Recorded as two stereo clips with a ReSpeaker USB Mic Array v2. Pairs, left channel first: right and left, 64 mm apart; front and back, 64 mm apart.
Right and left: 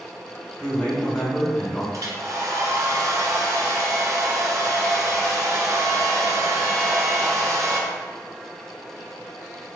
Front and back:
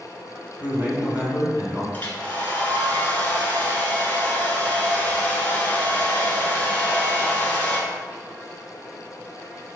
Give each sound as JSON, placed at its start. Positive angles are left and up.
{"t": 0.6, "sound": "a man speaking", "azimuth_deg": -150, "distance_m": 1.7}
{"t": 1.9, "sound": "a hair dryer", "azimuth_deg": 65, "distance_m": 1.1}